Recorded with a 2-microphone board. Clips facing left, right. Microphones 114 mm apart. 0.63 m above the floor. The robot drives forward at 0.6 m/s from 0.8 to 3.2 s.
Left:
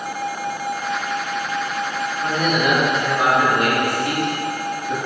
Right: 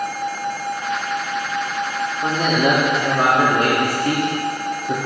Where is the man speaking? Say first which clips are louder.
Right 2 dB; 30° right (ahead or behind), 1.3 m; by 5.0 s 35° right (ahead or behind), 1.1 m.